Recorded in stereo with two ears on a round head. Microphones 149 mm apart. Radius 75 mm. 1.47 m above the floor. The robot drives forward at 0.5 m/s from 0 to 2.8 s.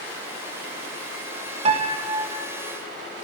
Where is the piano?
35° right (ahead or behind), 0.5 m; by 2.5 s 20° right (ahead or behind), 0.9 m.